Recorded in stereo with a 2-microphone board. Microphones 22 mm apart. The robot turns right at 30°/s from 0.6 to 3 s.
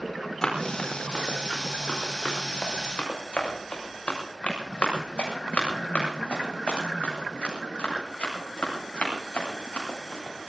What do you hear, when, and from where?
0.4 s running footsteps: 30° left (ahead or behind), 5 m; by 10.5 s 85° left, 10 m